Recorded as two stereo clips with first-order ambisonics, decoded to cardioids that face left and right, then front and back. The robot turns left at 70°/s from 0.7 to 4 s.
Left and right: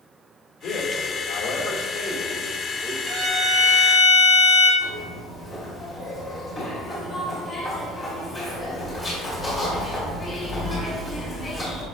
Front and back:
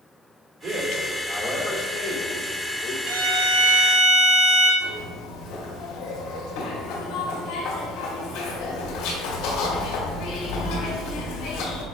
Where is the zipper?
25° left, 2.0 m.